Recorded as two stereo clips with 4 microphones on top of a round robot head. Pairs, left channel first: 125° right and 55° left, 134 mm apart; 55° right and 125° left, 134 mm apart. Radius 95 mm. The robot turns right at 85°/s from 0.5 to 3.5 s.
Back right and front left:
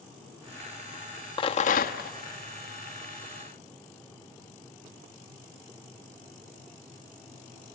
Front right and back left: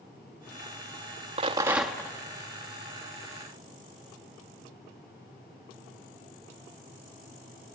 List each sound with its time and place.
1.4 s a rattle: 175° left, 1.1 m; by 2.1 s 120° right, 1.1 m